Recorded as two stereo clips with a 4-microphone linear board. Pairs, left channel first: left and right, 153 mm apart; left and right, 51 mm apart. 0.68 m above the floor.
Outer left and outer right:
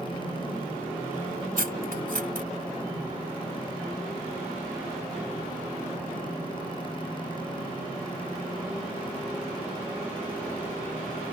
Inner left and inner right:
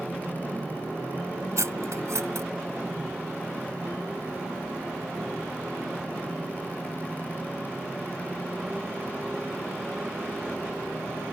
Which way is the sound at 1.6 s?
75° right (ahead or behind).